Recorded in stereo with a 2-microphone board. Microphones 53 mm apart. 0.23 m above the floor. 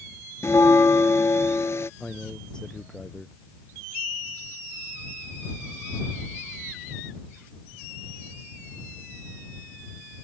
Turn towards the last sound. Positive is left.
turn(degrees=15)  # may be behind; listen again after turning